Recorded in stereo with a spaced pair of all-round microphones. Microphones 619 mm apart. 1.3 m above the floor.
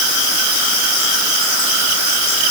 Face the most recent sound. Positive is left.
No sound to turn to.